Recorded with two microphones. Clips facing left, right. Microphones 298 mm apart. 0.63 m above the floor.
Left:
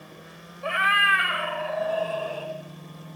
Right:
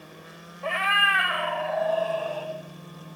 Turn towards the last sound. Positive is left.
turn(degrees=45)  # may be behind; listen again after turning